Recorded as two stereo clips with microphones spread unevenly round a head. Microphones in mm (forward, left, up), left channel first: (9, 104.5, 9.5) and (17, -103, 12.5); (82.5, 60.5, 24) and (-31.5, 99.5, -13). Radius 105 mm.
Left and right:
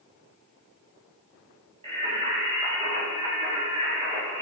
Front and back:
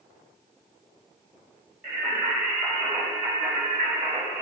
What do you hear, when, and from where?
1.8 s singing: 85° right, 1.6 m